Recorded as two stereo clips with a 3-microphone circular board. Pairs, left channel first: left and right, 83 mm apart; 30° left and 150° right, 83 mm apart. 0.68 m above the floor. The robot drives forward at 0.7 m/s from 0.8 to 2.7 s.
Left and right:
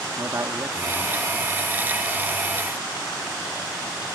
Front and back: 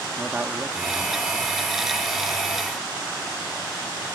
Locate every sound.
0.2 s a man speaking: 85° right, 1.1 m; by 1.5 s 115° right, 1.2 m